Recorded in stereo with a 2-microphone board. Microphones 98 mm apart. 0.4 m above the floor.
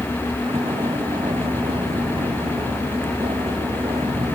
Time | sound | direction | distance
0.0 | a vehicle | 70° right (ahead or behind) | ?